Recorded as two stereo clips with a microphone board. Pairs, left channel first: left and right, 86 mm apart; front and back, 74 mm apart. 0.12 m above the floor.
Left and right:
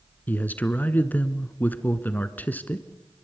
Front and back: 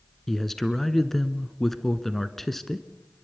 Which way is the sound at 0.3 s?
85° left.